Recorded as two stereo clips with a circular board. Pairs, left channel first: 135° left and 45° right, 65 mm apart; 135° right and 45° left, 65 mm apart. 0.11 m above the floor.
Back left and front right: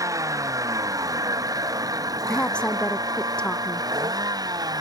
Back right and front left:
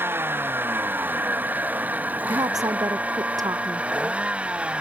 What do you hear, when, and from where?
0.0 s a vehicle: 10° right; by 4.8 s 25° right
2.3 s a woman speaking: 60° left